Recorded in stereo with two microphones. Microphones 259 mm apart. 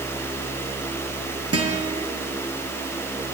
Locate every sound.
1.5 s a guitar: 65° right (ahead or behind), 5.5 m